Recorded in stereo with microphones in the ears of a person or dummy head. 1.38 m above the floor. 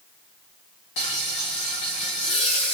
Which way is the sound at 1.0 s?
25° left (ahead or behind).